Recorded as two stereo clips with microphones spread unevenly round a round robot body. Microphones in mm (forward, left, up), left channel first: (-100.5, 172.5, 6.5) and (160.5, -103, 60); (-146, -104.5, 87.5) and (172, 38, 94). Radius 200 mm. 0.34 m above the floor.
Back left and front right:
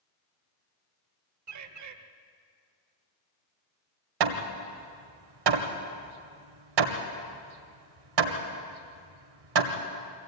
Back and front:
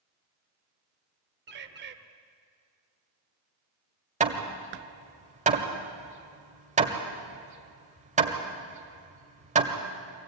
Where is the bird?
20° right, 1.5 m.